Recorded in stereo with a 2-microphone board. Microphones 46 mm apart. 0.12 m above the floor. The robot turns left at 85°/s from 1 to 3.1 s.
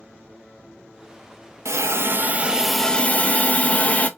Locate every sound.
1.6 s a hiss: 90° right, 0.5 m; by 4.1 s 150° left, 0.5 m